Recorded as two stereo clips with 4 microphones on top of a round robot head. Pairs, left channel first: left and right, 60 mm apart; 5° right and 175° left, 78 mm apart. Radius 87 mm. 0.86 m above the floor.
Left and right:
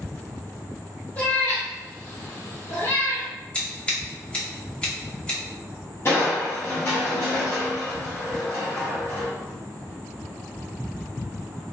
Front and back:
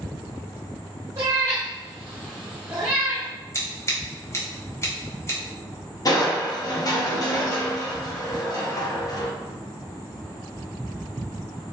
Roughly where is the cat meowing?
Behind left.